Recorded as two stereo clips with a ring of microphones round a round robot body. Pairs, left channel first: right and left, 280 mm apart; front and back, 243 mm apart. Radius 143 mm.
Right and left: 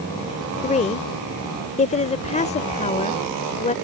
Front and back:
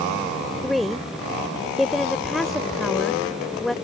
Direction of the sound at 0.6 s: 90° right.